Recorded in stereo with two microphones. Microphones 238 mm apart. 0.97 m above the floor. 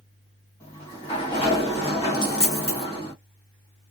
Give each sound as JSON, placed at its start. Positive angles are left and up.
{"t": 0.6, "sound": "a sliding door", "side_deg": 25, "distance_m": 1.4}
{"t": 2.1, "sound": "a dropped coin", "side_deg": 70, "distance_m": 1.0}